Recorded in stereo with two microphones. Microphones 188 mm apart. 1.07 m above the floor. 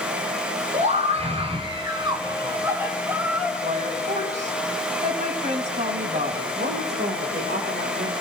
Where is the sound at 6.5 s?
65° right (ahead or behind), 4.5 m.